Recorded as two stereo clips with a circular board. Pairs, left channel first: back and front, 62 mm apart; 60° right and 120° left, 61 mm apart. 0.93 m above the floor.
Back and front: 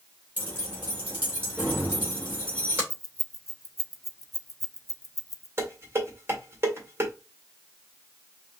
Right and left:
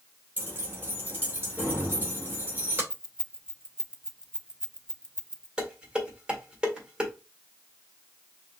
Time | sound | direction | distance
0.4 | keys jangling | 60° left | 3 m
2.9 | keys jangling | 160° right | 0.5 m
5.6 | dishes clattering | 45° left | 1.7 m